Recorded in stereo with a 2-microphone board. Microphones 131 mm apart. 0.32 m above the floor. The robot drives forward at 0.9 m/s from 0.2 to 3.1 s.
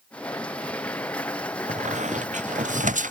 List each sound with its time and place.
1.7 s a squeak: 65° right (ahead or behind); by 3.1 s 75° right (ahead or behind)